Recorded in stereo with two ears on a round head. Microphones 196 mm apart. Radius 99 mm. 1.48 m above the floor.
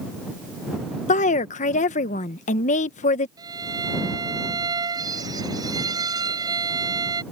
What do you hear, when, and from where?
1.1 s a woman speaking: 35° left (ahead or behind)
3.4 s a violin: 15° right (ahead or behind)